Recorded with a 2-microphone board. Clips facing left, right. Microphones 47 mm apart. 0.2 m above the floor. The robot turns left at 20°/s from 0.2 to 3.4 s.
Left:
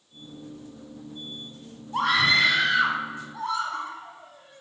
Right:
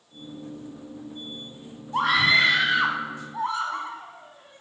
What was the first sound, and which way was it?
A scream, 10° right (ahead or behind).